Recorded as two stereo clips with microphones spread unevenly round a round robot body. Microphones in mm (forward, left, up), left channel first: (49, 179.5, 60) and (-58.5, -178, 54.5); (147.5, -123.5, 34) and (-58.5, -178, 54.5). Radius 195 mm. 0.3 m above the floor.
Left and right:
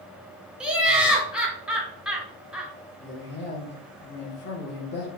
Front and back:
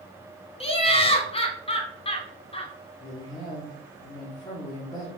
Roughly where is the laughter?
Ahead.